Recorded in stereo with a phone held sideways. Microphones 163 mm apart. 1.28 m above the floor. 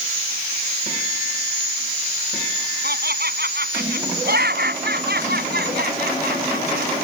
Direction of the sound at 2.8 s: 75° right (ahead or behind).